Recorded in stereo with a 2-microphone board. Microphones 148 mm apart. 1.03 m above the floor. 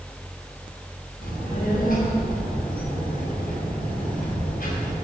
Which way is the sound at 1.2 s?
75° left (ahead or behind).